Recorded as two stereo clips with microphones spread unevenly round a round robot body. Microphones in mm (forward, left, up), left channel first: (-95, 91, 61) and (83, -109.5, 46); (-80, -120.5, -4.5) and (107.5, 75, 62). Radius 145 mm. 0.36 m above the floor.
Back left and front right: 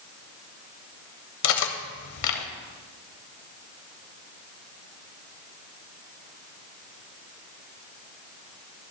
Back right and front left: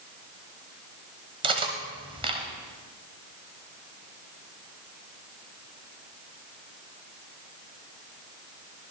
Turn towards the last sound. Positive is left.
turn(degrees=125)